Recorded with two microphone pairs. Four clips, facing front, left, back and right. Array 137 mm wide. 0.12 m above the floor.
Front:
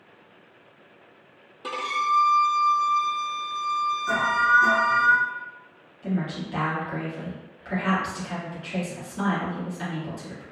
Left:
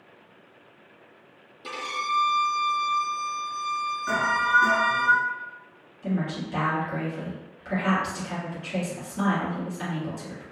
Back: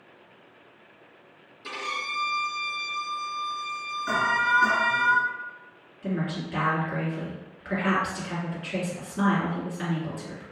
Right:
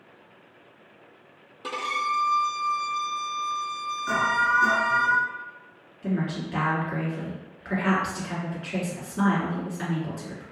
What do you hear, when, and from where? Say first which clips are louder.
1.6 s a violin: right 2 dB, front 9 dB; 40° right, 0.8 m
4.1 s an alarm: right 1 dB, front 1 dB; 155° left, 1.1 m
6.0 s a woman speaking: even, front 1 dB; 110° right, 1.7 m